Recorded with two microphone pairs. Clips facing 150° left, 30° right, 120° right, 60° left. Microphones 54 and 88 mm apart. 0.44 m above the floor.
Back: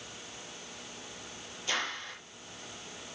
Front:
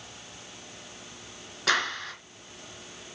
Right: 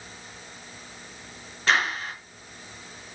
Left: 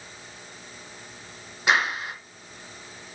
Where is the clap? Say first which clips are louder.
Front 8 dB, left 1 dB; 15° right, 3.5 m.